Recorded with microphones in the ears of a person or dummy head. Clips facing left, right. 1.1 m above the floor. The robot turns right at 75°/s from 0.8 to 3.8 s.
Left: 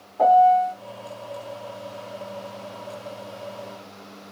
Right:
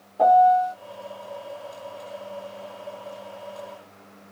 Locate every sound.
0.2 s a piano: 20° right (ahead or behind), 1.6 m